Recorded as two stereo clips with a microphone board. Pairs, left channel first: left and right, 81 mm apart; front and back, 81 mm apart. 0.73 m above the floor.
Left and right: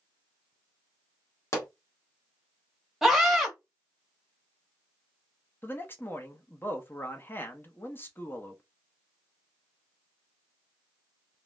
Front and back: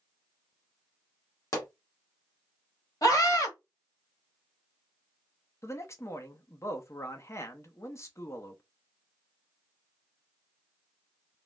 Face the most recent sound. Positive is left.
turn(degrees=40)